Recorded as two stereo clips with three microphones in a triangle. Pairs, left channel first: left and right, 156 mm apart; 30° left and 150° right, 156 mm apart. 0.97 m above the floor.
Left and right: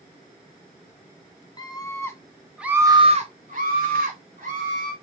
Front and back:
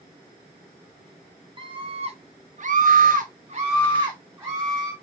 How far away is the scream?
About 0.9 m.